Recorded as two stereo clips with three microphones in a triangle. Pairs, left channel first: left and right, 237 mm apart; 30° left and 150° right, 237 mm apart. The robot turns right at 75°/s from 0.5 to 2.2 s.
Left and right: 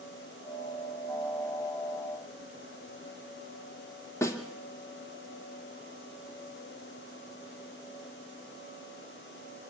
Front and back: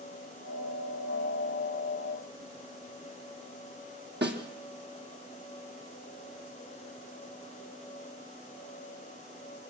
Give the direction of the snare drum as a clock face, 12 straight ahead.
6 o'clock.